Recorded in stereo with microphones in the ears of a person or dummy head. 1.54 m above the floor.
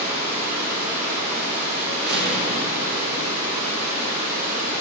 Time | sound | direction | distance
0.0 | running water | 55° right (ahead or behind) | 3.5 m
2.1 | a door slam | 60° right (ahead or behind) | 1.1 m